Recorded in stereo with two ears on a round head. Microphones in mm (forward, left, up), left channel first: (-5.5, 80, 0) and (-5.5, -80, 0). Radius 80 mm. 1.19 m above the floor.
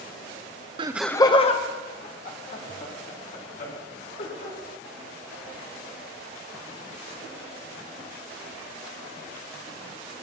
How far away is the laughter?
About 0.6 m.